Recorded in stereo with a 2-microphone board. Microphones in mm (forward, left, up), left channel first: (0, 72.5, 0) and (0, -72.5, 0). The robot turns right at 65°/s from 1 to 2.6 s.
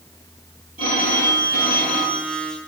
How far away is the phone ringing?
About 6.5 m.